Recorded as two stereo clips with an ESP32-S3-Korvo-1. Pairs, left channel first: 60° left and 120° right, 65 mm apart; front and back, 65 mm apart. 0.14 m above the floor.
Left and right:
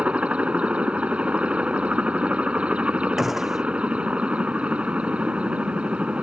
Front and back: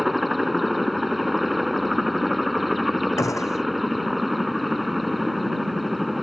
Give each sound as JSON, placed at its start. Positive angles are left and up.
{"t": 0.0, "sound": "a helicopter", "azimuth_deg": -90}
{"t": 3.2, "sound": "a gunshot", "azimuth_deg": -35}